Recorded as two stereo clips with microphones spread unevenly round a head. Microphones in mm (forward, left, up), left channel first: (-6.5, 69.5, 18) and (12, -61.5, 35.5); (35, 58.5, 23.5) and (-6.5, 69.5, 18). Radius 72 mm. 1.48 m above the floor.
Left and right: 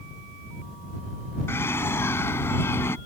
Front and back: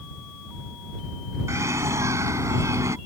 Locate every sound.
1.5 s a bird: 175° left